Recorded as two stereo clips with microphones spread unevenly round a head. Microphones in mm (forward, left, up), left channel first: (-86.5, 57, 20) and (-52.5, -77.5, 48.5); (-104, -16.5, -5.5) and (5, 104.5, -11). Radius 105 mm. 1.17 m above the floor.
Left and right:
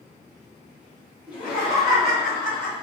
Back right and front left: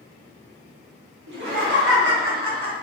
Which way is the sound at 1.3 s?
40° left.